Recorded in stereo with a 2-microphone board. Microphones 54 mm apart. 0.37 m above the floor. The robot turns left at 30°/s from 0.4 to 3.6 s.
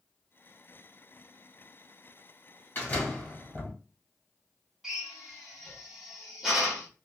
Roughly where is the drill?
Centre.